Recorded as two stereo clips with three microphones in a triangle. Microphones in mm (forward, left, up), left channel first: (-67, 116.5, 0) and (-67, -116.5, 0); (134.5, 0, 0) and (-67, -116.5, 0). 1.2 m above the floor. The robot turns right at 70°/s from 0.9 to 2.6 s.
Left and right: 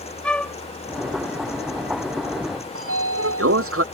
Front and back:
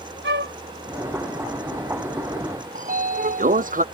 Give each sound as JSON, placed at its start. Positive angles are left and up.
{"t": 0.2, "sound": "a flute", "azimuth_deg": 175}
{"t": 2.8, "sound": "a sliding door", "azimuth_deg": -95}